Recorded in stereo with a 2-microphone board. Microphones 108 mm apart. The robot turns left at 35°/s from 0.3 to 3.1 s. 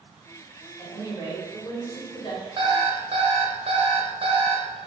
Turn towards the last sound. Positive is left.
turn(degrees=-55)  # may be behind; listen again after turning